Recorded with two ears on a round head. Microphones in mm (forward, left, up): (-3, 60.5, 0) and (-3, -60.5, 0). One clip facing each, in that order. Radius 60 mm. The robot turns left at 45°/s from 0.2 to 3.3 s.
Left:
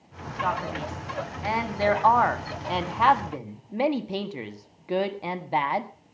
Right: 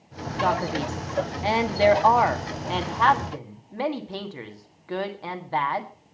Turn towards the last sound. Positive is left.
turn(degrees=150)